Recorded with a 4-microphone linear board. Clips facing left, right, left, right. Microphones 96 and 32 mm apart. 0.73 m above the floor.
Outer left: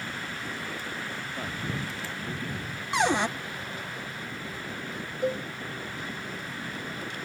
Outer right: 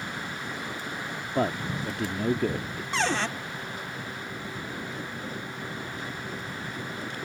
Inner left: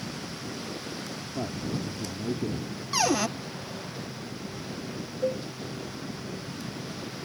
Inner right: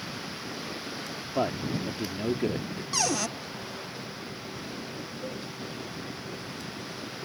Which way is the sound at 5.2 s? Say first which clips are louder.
Outer left 8 dB, inner left 11 dB; 75° left (ahead or behind).